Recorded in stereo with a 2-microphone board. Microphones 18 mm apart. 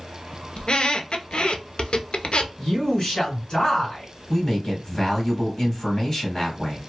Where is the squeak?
80° left, 0.5 m.